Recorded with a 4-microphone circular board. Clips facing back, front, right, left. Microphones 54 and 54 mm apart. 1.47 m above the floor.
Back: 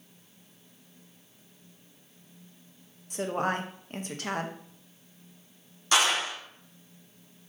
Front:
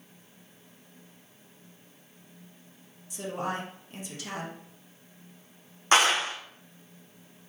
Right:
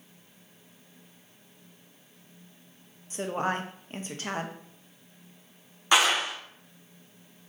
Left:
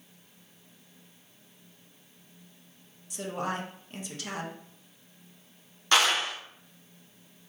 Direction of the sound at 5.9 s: 20° right.